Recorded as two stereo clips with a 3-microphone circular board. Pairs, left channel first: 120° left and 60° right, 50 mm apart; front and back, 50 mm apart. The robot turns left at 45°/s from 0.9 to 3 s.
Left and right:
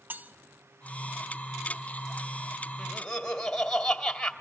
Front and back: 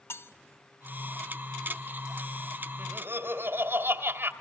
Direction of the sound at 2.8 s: 155° right.